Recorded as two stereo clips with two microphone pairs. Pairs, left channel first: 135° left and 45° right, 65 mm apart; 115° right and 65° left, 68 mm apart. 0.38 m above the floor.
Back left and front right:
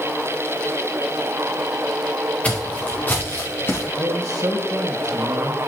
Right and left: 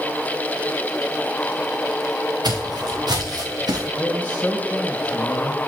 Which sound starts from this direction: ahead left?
Footsteps, at 2.4 s.